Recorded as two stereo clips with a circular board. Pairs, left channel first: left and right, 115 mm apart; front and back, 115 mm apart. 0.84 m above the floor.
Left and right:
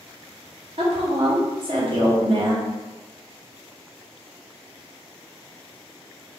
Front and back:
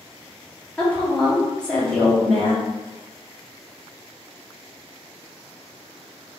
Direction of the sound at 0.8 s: 80° right.